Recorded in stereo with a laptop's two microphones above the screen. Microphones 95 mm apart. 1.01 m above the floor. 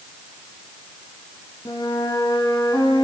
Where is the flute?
45° left (ahead or behind), 2 m.